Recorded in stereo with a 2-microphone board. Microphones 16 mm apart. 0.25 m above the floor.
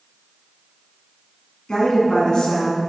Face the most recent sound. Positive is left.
turn(degrees=55)  # may be behind; listen again after turning